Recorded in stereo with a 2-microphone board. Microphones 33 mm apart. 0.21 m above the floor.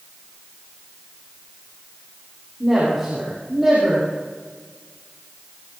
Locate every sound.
2.6 s a woman speaking: 15° right (ahead or behind), 9 m